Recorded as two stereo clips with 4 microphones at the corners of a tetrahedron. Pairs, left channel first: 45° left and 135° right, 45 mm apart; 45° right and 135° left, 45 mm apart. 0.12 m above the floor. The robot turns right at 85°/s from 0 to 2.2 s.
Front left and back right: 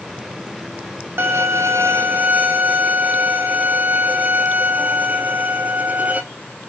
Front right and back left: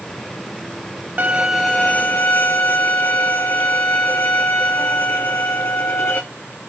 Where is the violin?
165° right, 1.2 m; by 6.2 s 80° right, 1.2 m.